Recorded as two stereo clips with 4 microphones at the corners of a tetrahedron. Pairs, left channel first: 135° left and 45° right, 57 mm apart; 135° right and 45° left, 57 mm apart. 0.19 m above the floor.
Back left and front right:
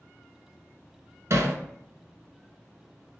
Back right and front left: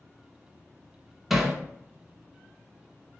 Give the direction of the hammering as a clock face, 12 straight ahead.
1 o'clock.